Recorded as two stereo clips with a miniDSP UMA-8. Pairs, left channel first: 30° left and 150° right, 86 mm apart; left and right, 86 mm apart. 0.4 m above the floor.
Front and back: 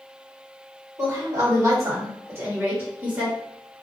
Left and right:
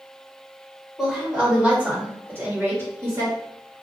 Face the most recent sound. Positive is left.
turn(degrees=-70)